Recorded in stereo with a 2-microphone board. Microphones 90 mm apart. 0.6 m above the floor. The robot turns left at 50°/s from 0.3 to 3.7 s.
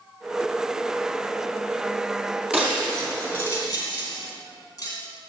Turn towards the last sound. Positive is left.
turn(degrees=40)  # may be behind; listen again after turning